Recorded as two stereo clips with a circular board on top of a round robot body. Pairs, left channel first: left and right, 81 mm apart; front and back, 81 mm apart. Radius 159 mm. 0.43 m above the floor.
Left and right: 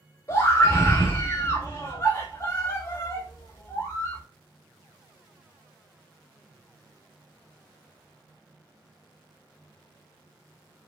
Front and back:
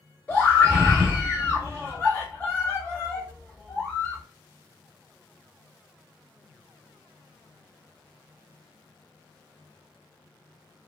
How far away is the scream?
About 1.9 m.